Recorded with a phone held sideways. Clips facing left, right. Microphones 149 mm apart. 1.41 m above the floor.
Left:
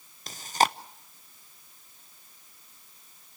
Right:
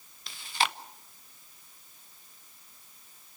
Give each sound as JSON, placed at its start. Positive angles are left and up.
{"t": 0.3, "sound": "chewing", "side_deg": 45, "distance_m": 0.7}